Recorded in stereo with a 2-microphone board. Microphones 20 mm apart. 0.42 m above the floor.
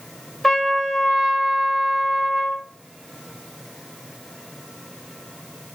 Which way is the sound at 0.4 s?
25° left (ahead or behind).